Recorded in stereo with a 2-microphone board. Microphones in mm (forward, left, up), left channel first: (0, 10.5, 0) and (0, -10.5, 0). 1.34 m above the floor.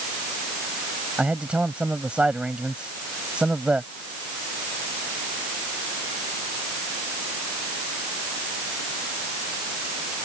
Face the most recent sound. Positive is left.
turn(degrees=-70)  # may be behind; listen again after turning